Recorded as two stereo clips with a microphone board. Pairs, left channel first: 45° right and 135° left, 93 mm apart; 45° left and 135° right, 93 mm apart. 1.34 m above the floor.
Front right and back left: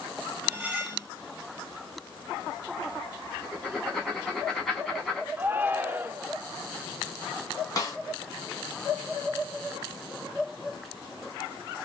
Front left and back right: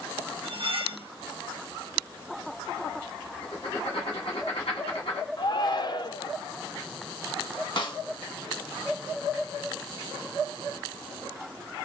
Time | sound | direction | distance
0.4 | cutlery clinking | 150° right | 1.4 m
3.4 | writing | 35° left | 2.5 m
5.4 | a shout | 70° left | 0.8 m
7.8 | a snare drum | 5° left | 1.4 m